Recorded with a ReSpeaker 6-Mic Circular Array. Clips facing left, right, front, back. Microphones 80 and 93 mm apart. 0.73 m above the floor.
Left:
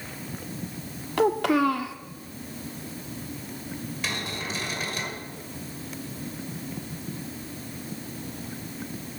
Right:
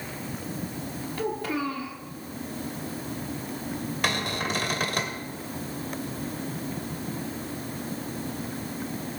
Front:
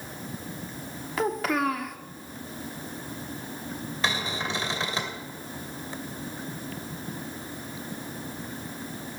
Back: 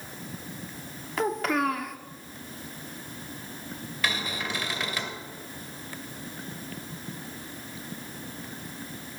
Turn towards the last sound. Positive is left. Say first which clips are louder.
# right 5 dB, front 1 dB
turn(degrees=-65)